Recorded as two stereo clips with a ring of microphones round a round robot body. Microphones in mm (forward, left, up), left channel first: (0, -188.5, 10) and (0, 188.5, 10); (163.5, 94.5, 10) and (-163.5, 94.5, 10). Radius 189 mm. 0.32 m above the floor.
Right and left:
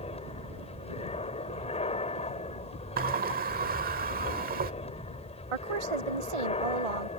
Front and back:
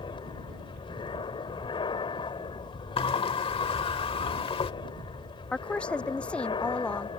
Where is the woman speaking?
85° left.